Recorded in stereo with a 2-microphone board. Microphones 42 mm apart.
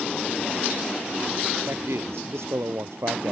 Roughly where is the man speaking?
Right.